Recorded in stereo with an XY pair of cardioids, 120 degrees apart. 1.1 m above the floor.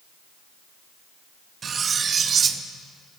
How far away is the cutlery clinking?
About 0.8 m.